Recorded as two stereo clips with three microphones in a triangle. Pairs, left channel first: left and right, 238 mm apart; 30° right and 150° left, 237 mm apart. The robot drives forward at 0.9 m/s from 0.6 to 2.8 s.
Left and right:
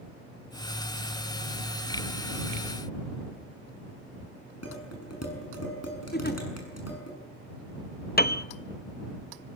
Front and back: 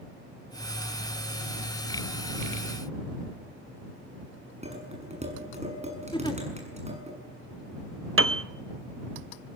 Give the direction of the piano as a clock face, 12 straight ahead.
8 o'clock.